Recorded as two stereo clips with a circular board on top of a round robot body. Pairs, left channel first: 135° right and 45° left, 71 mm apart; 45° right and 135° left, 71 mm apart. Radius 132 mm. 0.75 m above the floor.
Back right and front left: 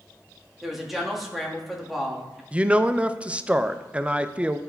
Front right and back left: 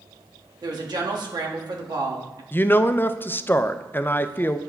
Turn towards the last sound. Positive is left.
turn(degrees=-15)